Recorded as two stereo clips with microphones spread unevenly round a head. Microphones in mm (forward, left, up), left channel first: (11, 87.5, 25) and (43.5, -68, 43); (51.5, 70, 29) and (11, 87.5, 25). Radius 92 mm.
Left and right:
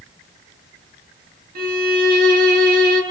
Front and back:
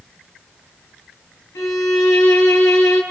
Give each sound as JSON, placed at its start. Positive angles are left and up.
{"t": 1.6, "sound": "a violin", "azimuth_deg": -55, "distance_m": 3.0}